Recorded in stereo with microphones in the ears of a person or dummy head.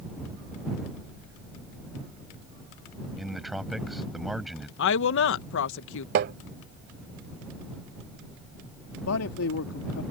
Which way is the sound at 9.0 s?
85° left.